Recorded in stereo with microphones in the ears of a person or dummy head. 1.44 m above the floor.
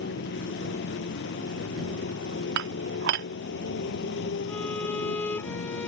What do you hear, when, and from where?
0.0 s a motorcycle: 60° left (ahead or behind)
2.6 s dishes clattering: 55° right (ahead or behind)
4.5 s a violin: 10° left (ahead or behind)